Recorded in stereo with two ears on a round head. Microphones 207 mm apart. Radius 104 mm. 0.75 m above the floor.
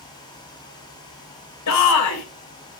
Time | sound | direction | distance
1.7 | a shout | 75° left (ahead or behind) | 3 m